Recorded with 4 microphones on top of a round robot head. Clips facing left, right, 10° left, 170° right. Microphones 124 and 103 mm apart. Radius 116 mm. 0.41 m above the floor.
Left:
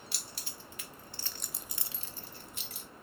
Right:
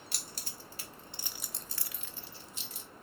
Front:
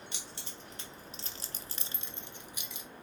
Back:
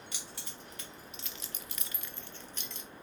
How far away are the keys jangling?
About 1.0 m.